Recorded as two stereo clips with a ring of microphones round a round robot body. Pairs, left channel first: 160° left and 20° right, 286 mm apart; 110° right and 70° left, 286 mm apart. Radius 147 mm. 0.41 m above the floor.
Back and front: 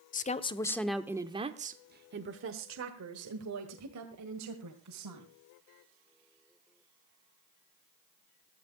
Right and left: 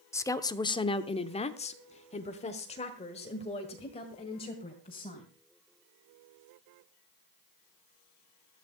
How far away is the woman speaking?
About 0.9 m.